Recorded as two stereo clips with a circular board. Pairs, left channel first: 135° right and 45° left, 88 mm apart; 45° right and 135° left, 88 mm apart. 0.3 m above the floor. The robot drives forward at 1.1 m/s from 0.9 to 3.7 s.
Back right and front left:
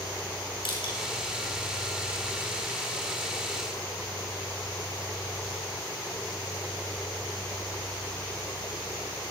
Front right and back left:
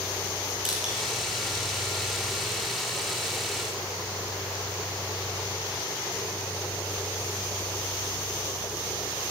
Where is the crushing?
140° right, 4 m.